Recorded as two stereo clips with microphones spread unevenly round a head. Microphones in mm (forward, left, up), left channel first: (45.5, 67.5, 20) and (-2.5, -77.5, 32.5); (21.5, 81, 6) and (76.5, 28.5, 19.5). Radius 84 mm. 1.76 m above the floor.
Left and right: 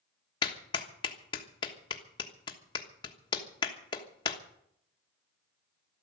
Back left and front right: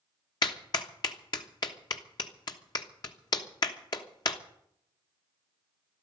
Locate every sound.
0.4 s a clap: 130° left, 1.2 m